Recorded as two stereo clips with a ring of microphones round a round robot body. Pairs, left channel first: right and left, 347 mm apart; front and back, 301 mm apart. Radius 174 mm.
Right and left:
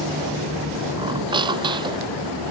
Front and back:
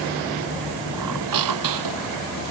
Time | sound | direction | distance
1.0 | a squeak | 170° left | ?